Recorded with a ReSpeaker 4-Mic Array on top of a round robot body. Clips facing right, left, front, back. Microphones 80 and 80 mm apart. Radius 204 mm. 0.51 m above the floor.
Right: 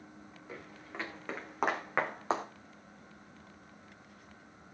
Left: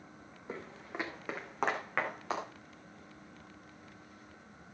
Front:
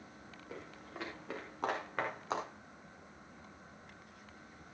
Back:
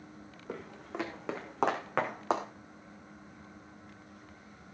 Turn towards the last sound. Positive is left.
turn(degrees=-150)